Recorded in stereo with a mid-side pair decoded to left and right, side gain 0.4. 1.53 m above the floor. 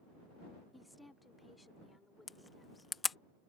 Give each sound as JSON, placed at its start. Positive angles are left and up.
{"t": 0.7, "sound": "a woman speaking", "azimuth_deg": 10}
{"t": 2.3, "sound": "a camera shutter", "azimuth_deg": 35}